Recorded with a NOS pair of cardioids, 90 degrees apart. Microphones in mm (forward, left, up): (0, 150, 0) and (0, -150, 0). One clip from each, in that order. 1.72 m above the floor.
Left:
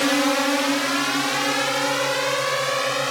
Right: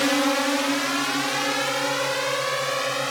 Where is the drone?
25° left; by 3.1 s 55° left.